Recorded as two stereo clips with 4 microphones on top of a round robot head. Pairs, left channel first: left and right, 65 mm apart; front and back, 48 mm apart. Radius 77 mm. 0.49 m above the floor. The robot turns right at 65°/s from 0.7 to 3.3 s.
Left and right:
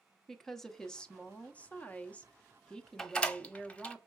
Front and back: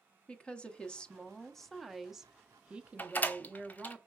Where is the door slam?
10° left, 0.8 m; by 4.0 s 30° left, 0.8 m.